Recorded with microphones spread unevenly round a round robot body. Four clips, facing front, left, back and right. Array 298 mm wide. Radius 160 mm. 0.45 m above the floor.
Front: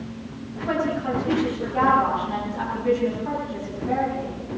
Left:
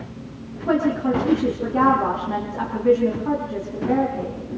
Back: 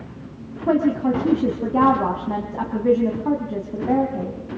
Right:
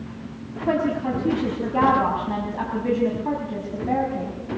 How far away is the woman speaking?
About 4 m.